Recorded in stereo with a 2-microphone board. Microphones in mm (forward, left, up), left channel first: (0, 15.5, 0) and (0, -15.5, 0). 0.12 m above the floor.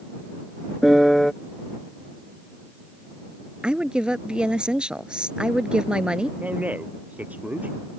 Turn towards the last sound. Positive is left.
turn(degrees=-55)  # may be behind; listen again after turning